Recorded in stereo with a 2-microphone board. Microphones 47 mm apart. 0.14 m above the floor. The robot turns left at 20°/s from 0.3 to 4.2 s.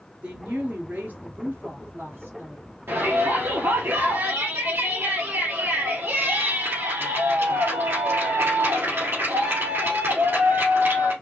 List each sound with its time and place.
0.2 s a woman speaking: 35° right, 2.0 m; by 2.6 s 80° right, 2.0 m
2.9 s a shout: 60° right (ahead or behind), 2.5 m; by 11.1 s 65° right (ahead or behind), 2.5 m